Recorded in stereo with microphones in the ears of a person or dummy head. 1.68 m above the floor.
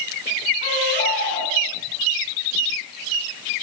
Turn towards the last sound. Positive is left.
turn(degrees=45)  # may be behind; listen again after turning